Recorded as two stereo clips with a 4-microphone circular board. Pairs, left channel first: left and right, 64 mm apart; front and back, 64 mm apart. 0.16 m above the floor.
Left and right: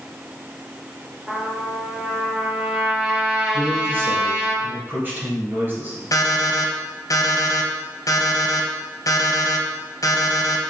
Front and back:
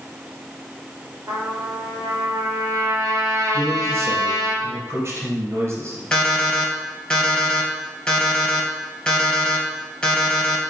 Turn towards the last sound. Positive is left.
turn(degrees=80)